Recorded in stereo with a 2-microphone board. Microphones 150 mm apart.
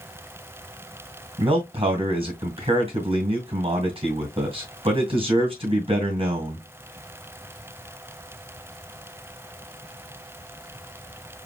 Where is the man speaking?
40° right (ahead or behind), 2 m.